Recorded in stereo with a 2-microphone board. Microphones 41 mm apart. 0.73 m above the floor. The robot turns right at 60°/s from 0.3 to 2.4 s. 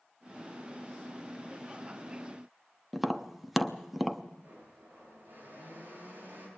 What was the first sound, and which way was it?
Tapping, 5° right (ahead or behind).